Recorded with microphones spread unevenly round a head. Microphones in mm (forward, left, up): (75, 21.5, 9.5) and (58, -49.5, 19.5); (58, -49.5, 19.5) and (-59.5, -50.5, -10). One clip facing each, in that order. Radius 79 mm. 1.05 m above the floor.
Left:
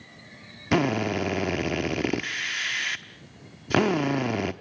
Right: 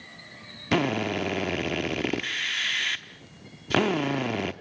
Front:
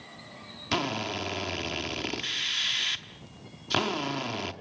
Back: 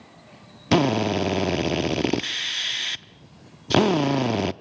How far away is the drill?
About 0.6 m.